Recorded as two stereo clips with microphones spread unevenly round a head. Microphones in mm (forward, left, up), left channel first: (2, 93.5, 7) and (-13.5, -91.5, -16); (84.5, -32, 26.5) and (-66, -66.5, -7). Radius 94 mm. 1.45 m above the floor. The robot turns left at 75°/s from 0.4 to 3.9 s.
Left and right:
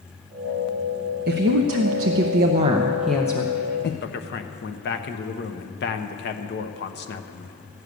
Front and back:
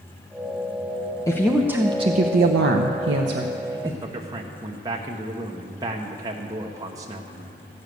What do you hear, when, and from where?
1.3 s a woman speaking: 50° right, 0.8 m; by 3.9 s 110° left, 0.8 m
4.0 s a man speaking: 125° left, 1.0 m